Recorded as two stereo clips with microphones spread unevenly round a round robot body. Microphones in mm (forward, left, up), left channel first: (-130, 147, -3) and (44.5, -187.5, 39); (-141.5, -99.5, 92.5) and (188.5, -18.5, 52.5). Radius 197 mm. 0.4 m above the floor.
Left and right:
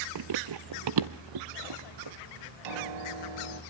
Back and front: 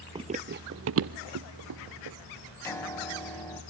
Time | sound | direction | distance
0.1 | running footsteps | 65° right | 0.5 m
2.6 | a piano | 85° right | 2.5 m